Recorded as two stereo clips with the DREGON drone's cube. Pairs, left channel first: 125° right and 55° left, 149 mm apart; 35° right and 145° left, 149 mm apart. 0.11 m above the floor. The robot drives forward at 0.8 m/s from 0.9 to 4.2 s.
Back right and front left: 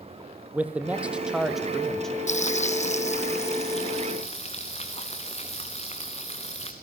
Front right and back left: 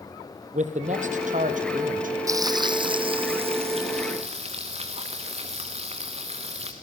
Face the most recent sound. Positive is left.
turn(degrees=-170)